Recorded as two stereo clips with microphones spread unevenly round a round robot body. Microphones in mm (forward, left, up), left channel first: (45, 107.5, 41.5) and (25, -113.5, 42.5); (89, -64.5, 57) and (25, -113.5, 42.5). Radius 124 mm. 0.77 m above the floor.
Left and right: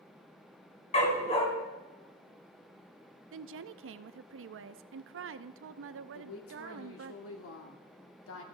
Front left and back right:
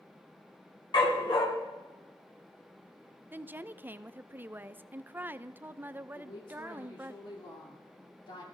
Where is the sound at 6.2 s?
75° left, 2 m.